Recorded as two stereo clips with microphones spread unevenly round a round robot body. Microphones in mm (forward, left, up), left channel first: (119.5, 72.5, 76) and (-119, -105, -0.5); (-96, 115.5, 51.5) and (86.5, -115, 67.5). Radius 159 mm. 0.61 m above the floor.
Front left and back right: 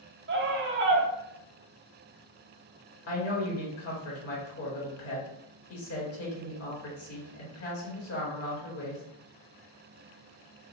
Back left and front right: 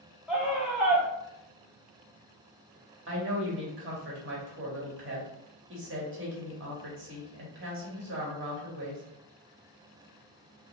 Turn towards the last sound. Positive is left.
turn(degrees=-10)